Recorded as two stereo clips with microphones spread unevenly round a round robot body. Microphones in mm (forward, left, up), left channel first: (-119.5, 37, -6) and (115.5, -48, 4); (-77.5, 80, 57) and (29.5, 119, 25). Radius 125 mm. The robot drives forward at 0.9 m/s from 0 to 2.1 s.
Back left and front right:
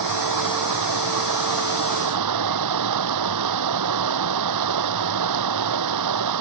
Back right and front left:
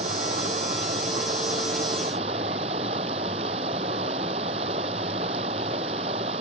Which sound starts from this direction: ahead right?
Running water, at 0.0 s.